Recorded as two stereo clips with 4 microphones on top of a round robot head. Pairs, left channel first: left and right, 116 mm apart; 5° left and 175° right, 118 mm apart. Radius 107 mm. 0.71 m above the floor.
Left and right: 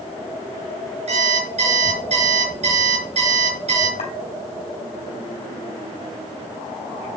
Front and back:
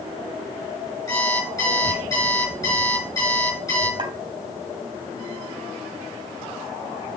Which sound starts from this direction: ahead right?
An alarm clock, at 1.1 s.